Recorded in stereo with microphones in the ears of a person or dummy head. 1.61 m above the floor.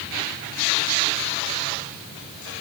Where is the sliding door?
No sliding door in this recording.